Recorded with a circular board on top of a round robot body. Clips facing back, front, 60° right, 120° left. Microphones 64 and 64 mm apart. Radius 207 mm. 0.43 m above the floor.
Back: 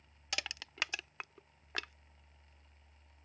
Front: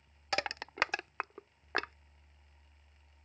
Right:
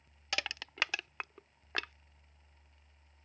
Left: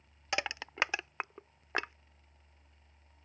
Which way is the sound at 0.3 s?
50° left.